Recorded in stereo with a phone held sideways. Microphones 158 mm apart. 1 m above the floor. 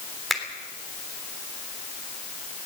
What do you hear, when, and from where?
0.3 s a finger snap: centre (ahead or behind), 3 m